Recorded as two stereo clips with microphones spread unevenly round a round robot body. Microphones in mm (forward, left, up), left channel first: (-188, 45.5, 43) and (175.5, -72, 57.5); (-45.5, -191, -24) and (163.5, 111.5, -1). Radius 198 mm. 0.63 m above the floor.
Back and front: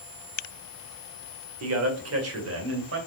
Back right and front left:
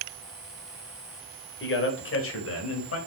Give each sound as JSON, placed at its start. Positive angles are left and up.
{"t": 1.6, "sound": "a man speaking", "azimuth_deg": -70, "distance_m": 2.5}